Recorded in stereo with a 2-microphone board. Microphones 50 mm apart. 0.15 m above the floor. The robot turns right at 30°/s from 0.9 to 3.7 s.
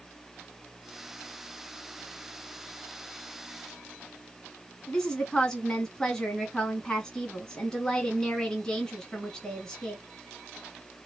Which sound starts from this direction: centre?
A woman speaking, at 4.9 s.